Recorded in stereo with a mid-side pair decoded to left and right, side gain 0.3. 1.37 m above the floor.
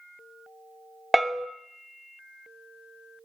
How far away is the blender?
No blender in this recording.